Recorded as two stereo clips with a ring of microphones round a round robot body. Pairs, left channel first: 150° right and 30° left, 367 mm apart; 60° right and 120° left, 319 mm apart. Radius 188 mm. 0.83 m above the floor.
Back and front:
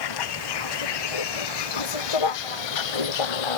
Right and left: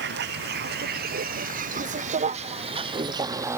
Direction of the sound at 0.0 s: 175° right.